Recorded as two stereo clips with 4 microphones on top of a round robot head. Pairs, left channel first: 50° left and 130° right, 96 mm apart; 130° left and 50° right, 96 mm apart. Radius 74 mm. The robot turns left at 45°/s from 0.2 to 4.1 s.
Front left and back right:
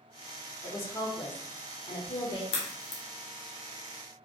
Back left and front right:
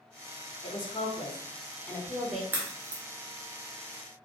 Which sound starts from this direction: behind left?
A woman speaking, at 0.6 s.